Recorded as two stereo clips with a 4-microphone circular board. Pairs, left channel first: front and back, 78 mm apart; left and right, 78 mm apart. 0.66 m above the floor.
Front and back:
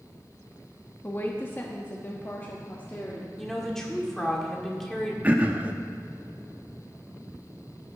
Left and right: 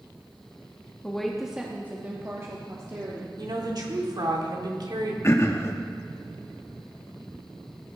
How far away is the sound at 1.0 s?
About 1.0 m.